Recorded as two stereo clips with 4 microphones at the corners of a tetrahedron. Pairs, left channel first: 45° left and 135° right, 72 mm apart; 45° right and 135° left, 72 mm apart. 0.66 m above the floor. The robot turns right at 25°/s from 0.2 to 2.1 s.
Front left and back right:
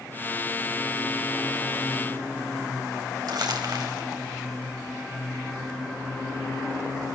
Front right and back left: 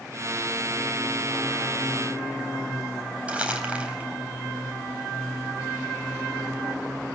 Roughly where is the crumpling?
Behind right.